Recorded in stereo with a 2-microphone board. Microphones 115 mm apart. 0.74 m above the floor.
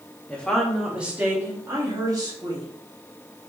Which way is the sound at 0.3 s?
10° left (ahead or behind).